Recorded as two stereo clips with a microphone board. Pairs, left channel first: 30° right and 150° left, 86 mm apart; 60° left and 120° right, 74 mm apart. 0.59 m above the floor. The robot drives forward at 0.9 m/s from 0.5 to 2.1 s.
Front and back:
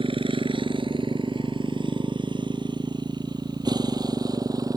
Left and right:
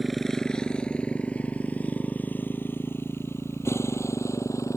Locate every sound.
0.0 s a motorcycle: 150° left; by 4.8 s 105° left